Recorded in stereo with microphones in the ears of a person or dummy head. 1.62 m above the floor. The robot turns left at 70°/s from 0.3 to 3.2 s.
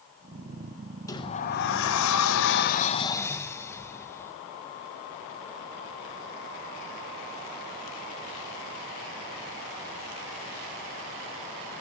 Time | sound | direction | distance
1.1 | a sliding door | 160° left | 0.6 m